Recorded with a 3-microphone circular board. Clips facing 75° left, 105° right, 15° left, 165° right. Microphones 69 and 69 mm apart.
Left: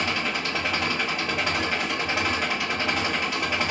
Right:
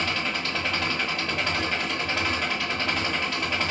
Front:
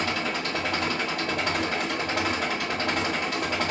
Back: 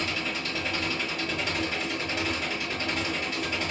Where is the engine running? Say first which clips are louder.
Left 1 dB, front 4 dB; 5° right, 1.4 m.